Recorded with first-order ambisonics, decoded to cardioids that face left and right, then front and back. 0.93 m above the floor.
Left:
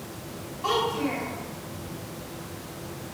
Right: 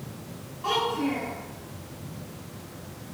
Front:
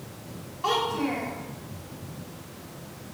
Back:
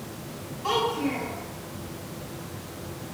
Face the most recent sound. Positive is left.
turn(degrees=15)